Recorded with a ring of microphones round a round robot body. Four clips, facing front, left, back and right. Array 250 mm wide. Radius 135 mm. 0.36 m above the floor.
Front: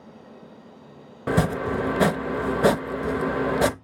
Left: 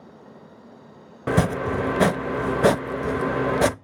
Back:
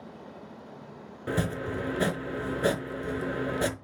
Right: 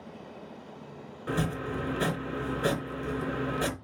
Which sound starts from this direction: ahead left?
Chopping, at 1.3 s.